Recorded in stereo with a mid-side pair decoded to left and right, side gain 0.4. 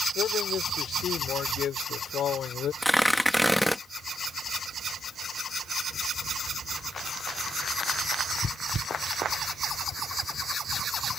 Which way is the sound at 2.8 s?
5° left.